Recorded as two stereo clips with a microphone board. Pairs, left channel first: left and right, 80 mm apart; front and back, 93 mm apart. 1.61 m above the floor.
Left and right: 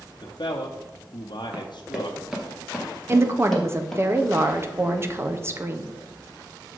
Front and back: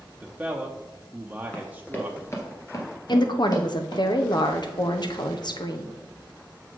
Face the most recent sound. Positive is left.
turn(degrees=-35)